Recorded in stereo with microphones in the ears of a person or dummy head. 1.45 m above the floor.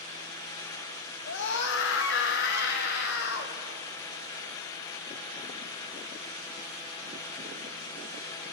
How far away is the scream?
About 2.5 m.